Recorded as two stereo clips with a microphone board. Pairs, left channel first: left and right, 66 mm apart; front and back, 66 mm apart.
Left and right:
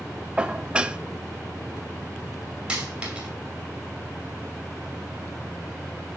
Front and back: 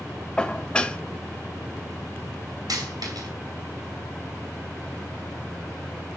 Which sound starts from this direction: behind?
A dropped coin, at 2.7 s.